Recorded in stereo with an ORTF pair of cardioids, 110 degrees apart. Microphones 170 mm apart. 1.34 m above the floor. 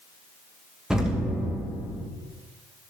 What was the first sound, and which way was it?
An explosion, 5° right.